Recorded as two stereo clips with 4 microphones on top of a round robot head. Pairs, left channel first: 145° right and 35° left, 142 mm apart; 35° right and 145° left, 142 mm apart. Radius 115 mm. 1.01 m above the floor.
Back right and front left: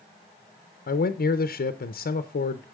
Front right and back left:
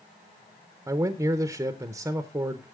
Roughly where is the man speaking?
Behind right.